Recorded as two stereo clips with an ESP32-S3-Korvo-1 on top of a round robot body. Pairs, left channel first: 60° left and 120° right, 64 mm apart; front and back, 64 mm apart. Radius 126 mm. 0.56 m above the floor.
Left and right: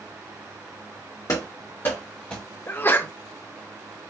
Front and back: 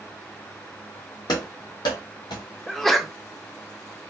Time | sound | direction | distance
1.3 | running footsteps | 15° left | 1.5 m
2.7 | a sneeze | 85° left | 0.9 m